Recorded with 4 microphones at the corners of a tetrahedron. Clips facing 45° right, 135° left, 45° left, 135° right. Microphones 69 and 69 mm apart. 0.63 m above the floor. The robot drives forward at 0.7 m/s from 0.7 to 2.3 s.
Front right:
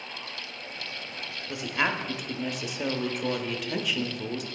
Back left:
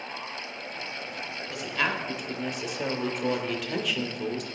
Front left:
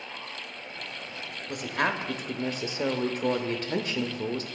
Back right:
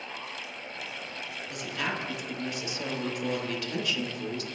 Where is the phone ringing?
No phone ringing in this recording.